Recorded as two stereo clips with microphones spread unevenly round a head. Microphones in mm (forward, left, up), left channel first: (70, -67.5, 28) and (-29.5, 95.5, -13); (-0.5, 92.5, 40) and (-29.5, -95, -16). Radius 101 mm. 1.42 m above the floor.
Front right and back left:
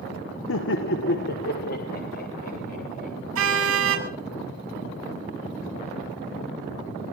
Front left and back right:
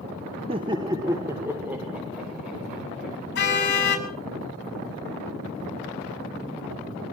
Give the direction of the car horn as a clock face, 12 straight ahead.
8 o'clock.